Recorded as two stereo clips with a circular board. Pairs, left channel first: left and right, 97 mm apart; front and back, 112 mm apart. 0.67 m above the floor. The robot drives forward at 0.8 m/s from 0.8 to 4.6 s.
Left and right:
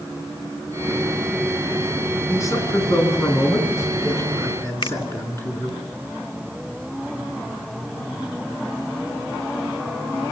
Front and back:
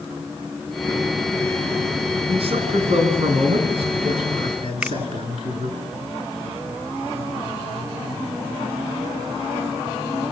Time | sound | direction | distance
2.3 | a man speaking | 150° left | 8.5 m
4.8 | a finger snap | 100° left | 0.5 m